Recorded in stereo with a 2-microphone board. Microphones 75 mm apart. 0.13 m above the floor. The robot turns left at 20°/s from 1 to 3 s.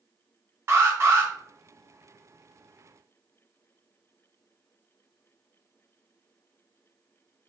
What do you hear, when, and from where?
0.7 s an alarm: 35° right (ahead or behind), 1.0 m; by 1.3 s 30° right (ahead or behind), 1.0 m